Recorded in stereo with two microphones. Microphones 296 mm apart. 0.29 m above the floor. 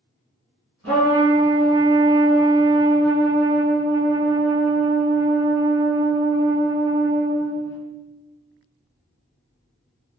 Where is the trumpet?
50° right (ahead or behind), 1.4 m.